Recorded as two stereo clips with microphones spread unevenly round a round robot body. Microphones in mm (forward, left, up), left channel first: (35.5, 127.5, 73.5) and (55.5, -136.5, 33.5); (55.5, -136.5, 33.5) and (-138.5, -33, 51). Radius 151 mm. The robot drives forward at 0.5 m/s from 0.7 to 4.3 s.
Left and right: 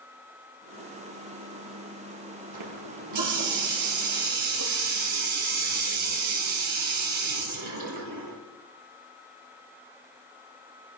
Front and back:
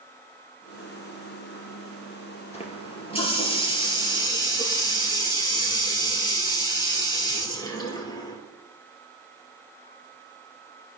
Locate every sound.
2.5 s a running tap: 90° right, 5 m; by 8.4 s 100° right, 5.5 m